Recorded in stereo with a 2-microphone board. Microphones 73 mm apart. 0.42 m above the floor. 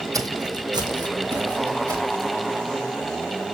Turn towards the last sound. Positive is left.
turn(degrees=-60)  # may be behind; listen again after turning